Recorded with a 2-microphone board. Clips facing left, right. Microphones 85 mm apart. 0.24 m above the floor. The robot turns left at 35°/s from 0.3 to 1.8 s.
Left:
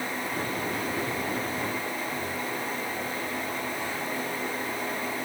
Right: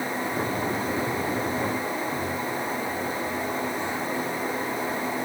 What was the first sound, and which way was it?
Only background noise.